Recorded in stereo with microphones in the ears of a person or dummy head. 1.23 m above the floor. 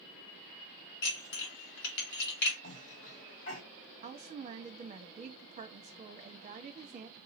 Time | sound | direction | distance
1.0 | dishes clattering | 65° left (ahead or behind) | 1.8 m
2.6 | a cough | 65° left (ahead or behind) | 3 m
4.0 | a woman speaking | 30° right (ahead or behind) | 1.1 m